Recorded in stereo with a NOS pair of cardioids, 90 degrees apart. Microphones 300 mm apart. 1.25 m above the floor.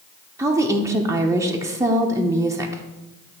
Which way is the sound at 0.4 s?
10° right.